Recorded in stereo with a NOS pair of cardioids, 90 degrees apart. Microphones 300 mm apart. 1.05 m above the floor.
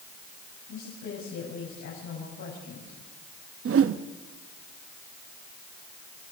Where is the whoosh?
45° right, 1.0 m.